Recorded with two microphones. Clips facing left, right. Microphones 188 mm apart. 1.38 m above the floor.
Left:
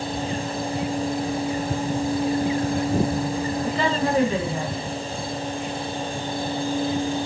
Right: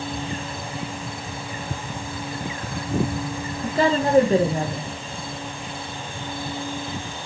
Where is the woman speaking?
40° right (ahead or behind), 1.5 m.